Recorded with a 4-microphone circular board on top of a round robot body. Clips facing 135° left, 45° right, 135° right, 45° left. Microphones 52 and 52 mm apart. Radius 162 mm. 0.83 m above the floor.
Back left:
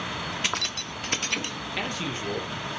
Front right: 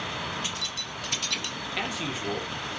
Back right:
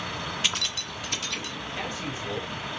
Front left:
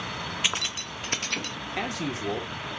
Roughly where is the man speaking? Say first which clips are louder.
Back left 1 dB, front left 4 dB; ahead left.